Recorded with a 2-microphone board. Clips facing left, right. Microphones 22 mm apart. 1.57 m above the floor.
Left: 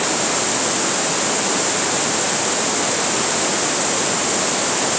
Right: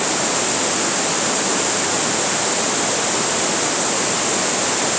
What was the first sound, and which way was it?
Only background noise.